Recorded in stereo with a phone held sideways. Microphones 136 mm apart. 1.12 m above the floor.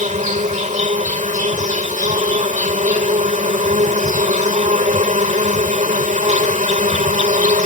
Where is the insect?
65° right (ahead or behind).